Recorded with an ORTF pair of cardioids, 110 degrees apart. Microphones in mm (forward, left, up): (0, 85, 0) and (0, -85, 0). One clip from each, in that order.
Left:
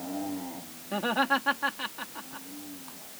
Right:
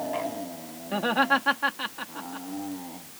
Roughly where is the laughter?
Ahead.